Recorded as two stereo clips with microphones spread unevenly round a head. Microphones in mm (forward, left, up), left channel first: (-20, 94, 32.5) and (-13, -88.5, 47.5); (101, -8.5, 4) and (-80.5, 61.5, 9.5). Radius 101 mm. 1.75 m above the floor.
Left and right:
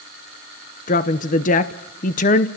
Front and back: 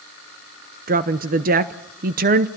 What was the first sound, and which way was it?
A woman speaking, 135° left.